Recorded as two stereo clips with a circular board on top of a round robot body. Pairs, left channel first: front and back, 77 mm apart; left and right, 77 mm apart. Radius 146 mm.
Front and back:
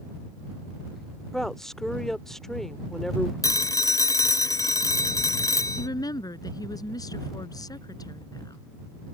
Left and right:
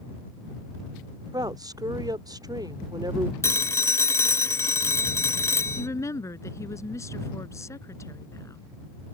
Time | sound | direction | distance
1.3 | a woman speaking | 85° right | ?
3.4 | a phone ringing | 40° left | ?
5.8 | a woman speaking | 35° left | ?